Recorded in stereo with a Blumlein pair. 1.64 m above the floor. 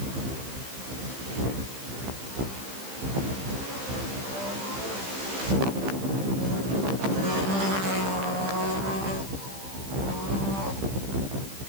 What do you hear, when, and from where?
Only background noise.